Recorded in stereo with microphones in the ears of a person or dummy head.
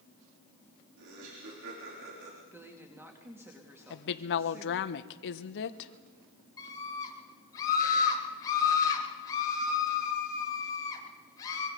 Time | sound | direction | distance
1.0 | laughter | 70° right (ahead or behind) | 4 m
2.5 | a woman speaking | 15° right (ahead or behind) | 2.5 m
3.9 | a woman speaking | 70° left (ahead or behind) | 1.1 m
6.6 | a scream | 30° left (ahead or behind) | 8.5 m